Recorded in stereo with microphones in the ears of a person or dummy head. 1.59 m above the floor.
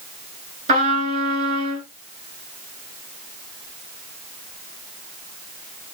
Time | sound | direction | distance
0.7 | a trumpet | 50° right (ahead or behind) | 2.5 m